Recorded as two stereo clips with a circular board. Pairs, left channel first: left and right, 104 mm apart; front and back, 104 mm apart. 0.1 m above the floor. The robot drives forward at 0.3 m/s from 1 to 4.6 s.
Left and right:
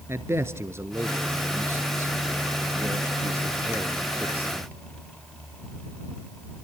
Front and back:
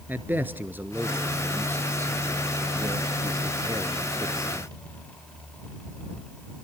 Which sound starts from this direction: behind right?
A man speaking, at 0.1 s.